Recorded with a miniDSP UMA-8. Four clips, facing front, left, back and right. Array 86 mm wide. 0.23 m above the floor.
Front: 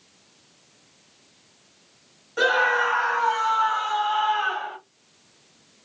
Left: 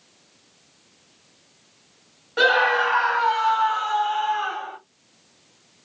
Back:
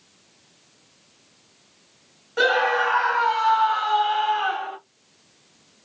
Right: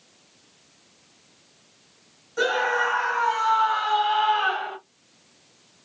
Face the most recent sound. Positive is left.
turn(degrees=-100)